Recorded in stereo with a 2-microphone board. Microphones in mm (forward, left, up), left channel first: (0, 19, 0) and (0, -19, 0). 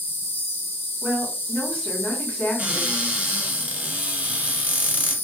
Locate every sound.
0.0 s an insect: 80° left, 0.7 m
1.0 s a woman speaking: 40° left (ahead or behind), 1.8 m
2.6 s a cupboard door: 40° right (ahead or behind), 0.8 m